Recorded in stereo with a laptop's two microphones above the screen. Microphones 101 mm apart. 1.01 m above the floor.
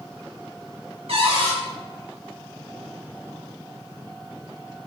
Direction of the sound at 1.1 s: 70° right (ahead or behind).